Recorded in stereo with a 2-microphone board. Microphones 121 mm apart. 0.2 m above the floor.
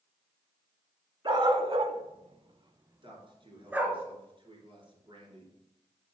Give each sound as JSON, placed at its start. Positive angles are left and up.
{"t": 1.2, "sound": "a dog barking", "side_deg": -45, "distance_m": 0.8}
{"t": 3.0, "sound": "a man speaking", "side_deg": -40, "distance_m": 2.5}